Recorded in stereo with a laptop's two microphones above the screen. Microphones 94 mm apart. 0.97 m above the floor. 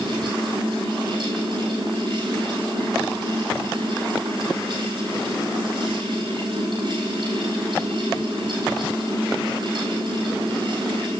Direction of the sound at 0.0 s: 55° right (ahead or behind).